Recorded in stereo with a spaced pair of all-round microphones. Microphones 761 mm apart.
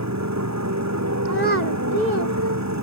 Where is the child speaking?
65° right (ahead or behind).